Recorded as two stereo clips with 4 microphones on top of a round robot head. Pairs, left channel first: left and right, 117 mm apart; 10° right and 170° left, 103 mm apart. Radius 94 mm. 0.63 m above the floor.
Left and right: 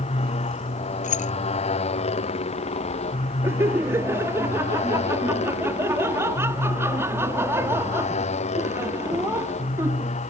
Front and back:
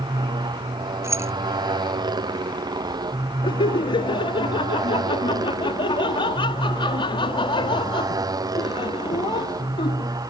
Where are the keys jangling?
105° left.